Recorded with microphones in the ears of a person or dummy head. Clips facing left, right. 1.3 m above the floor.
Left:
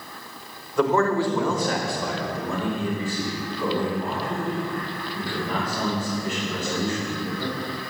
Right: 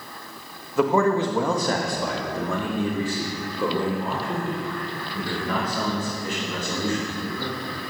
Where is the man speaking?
Centre (ahead or behind), 1.3 m; by 7.5 s 75° right (ahead or behind), 7 m.